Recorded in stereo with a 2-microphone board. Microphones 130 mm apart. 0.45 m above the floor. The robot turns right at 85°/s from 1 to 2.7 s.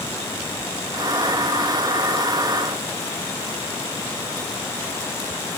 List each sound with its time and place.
Only background noise.